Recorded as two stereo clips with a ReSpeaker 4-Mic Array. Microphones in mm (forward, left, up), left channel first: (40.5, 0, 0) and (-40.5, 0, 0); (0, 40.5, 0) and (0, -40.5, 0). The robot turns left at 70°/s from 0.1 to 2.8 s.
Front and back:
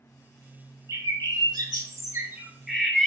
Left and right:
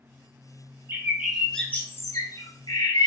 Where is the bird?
140° right, 0.7 m; by 3.1 s 85° left, 0.7 m.